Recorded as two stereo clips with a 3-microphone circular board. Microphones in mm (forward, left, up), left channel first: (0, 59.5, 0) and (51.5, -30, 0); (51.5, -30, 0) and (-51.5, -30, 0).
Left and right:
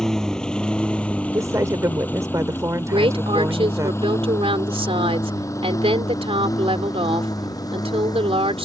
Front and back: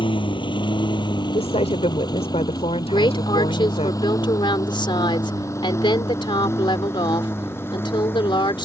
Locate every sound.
0.0 s a lawn mower: 35° left; by 8.7 s 70° left
1.3 s a woman speaking: straight ahead
2.9 s a woman speaking: 40° right